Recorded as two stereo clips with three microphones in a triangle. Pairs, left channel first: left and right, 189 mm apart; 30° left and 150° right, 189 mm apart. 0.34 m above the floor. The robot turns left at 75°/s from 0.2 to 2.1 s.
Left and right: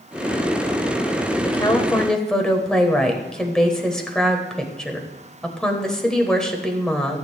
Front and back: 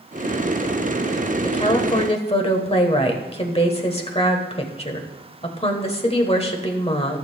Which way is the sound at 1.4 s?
55° left.